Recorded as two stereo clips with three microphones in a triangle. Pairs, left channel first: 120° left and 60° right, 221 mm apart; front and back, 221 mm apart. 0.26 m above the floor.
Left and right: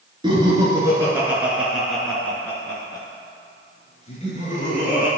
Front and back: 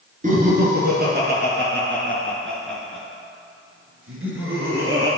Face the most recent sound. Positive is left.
turn(degrees=170)